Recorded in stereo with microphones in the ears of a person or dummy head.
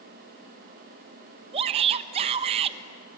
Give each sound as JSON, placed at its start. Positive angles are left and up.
{"t": 1.5, "sound": "a shout", "side_deg": -30, "distance_m": 1.3}